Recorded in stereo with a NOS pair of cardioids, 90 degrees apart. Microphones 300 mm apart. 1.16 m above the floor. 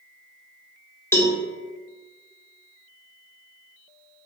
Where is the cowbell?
10° left, 0.8 m.